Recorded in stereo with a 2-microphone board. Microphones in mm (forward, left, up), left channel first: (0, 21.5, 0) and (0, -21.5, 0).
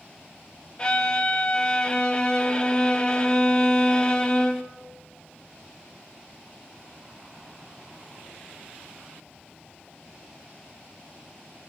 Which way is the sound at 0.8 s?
25° left (ahead or behind).